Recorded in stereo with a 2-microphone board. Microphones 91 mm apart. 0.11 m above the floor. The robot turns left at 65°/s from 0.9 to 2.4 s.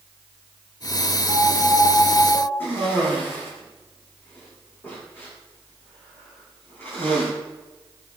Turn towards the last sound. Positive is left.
turn(degrees=20)  # may be behind; listen again after turning